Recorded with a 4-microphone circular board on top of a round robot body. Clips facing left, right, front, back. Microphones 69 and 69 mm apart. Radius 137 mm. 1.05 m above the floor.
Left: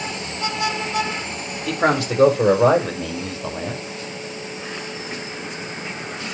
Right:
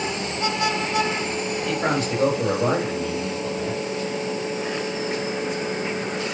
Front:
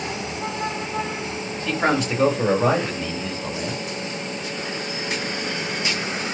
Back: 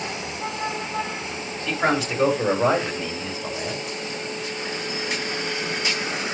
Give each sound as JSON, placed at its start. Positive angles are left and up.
{"t": 1.7, "sound": "a man speaking", "azimuth_deg": 85, "distance_m": 5.5}